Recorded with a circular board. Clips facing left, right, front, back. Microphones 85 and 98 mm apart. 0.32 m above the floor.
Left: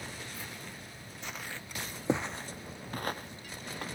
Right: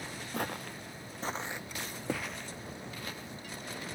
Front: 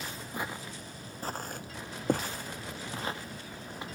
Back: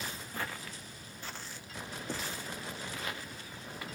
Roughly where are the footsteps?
Right.